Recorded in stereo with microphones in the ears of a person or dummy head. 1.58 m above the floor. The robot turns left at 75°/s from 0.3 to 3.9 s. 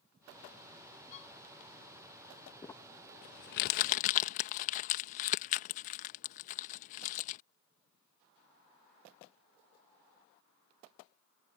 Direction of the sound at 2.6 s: 10° left (ahead or behind).